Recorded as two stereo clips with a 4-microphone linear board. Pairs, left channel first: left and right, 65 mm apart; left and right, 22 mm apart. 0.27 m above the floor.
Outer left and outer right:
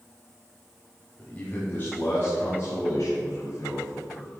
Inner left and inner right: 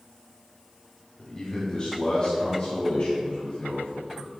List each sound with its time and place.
1.2 s a man speaking: 20° left (ahead or behind), 1.2 m; by 4.3 s 50° left (ahead or behind), 3 m